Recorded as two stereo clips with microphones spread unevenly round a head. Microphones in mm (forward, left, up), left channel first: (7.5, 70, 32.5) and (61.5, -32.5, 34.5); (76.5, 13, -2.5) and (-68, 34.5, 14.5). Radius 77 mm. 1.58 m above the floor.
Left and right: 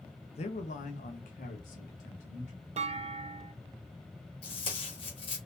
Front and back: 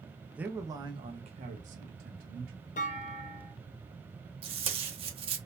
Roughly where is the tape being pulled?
Behind.